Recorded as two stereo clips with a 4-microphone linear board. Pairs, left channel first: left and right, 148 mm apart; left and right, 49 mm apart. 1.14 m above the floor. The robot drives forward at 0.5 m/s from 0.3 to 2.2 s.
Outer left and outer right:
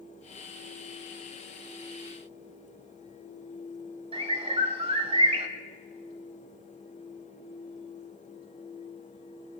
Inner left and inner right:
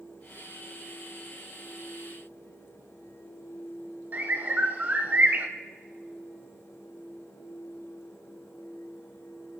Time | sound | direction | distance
4.1 | a bird | 40° right (ahead or behind) | 1.2 m